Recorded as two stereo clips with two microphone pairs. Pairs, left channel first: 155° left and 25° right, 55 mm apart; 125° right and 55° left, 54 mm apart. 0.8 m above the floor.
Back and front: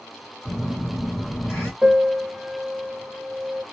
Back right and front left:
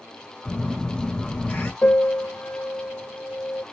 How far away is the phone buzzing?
About 2.0 m.